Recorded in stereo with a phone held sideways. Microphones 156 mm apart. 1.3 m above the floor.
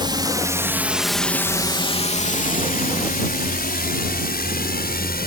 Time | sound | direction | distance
0.0 | a drone | 30° right (ahead or behind) | ?